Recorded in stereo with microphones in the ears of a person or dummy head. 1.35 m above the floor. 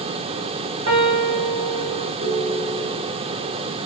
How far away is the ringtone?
About 3 m.